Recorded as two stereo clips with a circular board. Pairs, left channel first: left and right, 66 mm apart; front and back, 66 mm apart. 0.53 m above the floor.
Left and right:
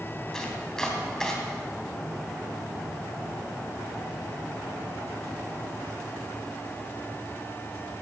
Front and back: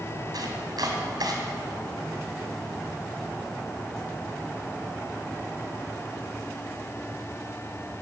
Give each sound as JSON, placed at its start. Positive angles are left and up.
{"t": 0.3, "sound": "chopping", "azimuth_deg": 170, "distance_m": 3.0}